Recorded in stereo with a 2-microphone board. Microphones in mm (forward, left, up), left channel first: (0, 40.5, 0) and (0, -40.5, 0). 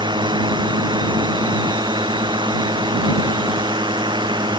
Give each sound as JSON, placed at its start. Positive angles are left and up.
{"t": 0.0, "sound": "a drone", "side_deg": -70}